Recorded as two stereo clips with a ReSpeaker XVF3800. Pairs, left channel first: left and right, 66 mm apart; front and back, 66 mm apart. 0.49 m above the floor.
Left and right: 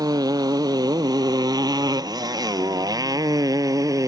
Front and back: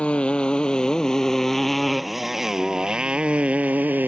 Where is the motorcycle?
75° right; by 4.1 s 120° right.